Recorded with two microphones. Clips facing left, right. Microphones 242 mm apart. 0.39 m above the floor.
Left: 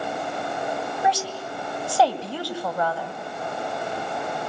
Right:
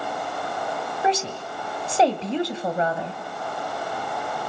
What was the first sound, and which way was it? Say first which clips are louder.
A woman speaking: right 3 dB; 25° right (ahead or behind).